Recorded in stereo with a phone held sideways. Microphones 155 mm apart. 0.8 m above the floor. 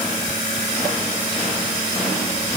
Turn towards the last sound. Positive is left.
No sound to turn to.